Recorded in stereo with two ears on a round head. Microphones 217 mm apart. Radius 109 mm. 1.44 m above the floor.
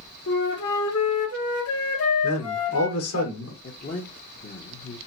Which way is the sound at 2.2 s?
70° left (ahead or behind).